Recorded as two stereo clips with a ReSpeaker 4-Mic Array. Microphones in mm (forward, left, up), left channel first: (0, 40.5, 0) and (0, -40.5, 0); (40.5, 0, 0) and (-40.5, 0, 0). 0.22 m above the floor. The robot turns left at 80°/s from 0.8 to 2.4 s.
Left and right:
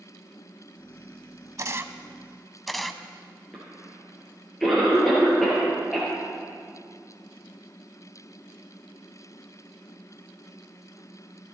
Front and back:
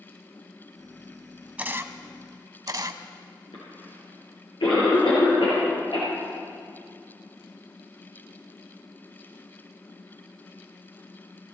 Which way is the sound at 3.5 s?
5° left.